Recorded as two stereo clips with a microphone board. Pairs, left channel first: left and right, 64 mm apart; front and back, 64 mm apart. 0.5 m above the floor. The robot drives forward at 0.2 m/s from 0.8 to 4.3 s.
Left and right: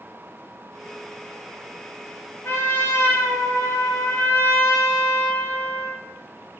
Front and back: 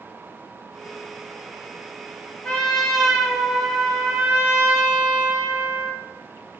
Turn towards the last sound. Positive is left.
turn(degrees=125)